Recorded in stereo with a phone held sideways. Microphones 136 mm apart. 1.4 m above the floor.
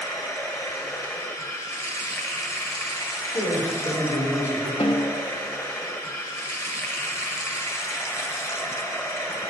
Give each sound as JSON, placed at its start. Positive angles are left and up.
{"t": 0.0, "sound": "running water", "side_deg": 20, "distance_m": 1.0}
{"t": 3.3, "sound": "a man speaking", "side_deg": 80, "distance_m": 4.5}
{"t": 4.8, "sound": "a snare drum", "side_deg": 45, "distance_m": 1.1}